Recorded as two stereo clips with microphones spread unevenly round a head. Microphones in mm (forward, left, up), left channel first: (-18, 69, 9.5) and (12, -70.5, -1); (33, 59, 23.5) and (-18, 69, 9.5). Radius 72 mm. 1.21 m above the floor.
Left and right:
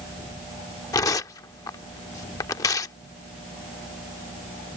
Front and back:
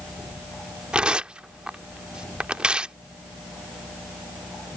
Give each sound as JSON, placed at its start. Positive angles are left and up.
{"t": 0.9, "sound": "tearing paper", "azimuth_deg": 85}